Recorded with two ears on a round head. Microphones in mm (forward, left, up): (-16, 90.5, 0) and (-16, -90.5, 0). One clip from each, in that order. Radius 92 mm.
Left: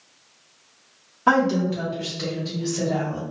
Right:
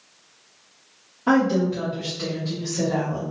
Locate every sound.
1.3 s a woman speaking: 45° left (ahead or behind), 1.3 m; by 3.2 s 5° left (ahead or behind), 1.6 m